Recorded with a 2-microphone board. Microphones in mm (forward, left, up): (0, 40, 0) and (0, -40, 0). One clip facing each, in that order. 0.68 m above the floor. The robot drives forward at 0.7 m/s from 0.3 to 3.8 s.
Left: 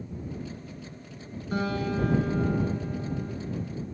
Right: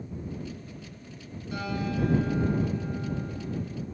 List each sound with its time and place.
1.5 s a guitar: 45° left (ahead or behind), 1.4 m; by 3.3 s 25° left (ahead or behind), 2.5 m